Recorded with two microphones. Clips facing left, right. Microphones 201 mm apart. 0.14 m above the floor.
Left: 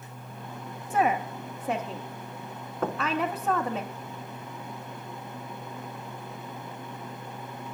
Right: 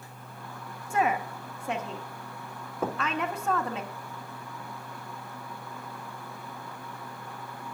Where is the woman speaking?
5° left (ahead or behind), 1.1 m.